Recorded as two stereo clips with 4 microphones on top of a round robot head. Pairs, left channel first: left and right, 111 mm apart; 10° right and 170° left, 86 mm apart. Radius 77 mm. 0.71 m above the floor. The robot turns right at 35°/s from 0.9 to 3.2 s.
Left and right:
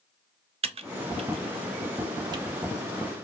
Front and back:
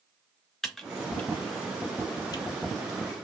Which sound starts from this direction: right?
Typing on a keyboard, at 0.6 s.